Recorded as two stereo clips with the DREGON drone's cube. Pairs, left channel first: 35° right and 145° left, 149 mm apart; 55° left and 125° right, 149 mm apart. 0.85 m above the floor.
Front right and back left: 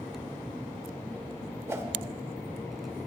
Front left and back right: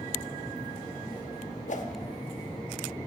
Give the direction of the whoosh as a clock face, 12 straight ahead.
10 o'clock.